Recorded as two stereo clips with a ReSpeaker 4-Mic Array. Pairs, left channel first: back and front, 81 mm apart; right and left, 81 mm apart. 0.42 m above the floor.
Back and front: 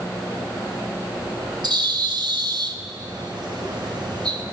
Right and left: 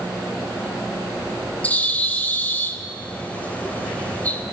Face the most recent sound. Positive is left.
turn(degrees=-20)